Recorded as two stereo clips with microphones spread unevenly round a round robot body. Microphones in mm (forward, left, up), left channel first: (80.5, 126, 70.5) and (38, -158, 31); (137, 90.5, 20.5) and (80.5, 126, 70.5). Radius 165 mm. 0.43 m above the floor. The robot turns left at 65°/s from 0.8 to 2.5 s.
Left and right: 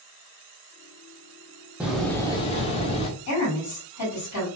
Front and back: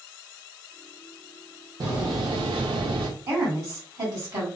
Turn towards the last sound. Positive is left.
turn(degrees=95)